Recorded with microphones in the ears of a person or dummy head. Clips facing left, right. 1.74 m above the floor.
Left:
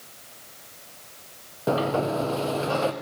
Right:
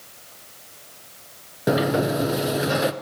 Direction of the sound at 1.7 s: 15° right (ahead or behind).